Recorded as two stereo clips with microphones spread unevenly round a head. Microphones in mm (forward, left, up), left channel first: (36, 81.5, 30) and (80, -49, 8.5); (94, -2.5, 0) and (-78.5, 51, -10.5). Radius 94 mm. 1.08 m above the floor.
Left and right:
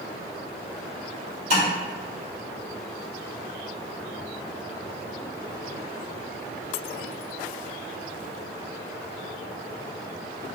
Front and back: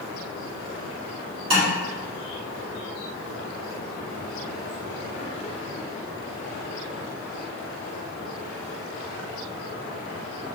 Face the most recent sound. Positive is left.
turn(degrees=-135)